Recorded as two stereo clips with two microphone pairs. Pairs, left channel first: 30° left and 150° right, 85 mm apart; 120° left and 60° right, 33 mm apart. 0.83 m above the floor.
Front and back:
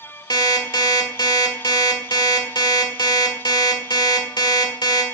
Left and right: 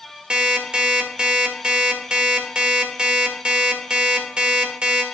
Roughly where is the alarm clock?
Ahead.